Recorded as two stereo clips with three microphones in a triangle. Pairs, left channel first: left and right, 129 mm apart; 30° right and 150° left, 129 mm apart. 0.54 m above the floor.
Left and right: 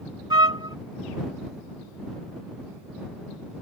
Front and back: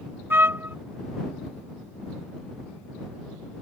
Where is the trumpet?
140° right.